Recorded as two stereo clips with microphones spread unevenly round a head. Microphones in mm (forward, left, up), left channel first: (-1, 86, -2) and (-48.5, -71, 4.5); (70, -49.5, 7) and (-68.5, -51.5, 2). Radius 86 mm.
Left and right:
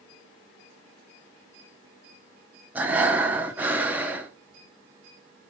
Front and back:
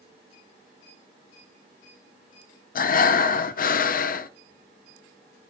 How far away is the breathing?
About 0.5 m.